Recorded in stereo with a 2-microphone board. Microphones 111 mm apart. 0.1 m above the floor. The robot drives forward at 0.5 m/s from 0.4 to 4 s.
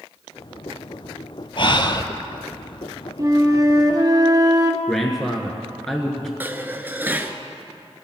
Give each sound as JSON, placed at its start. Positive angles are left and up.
{"t": 1.6, "sound": "breathing", "side_deg": 50, "distance_m": 0.8}
{"t": 3.2, "sound": "a flute", "side_deg": -35, "distance_m": 1.6}
{"t": 4.9, "sound": "a man speaking", "side_deg": 5, "distance_m": 1.4}
{"t": 6.4, "sound": "dishes clattering", "side_deg": -20, "distance_m": 1.0}